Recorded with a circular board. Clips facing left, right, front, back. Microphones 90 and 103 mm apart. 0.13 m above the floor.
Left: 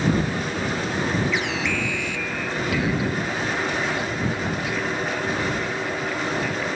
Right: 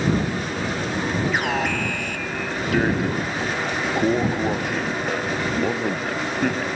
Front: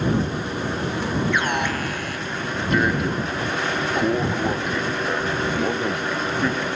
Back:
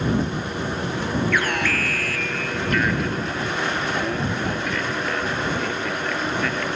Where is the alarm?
65° right.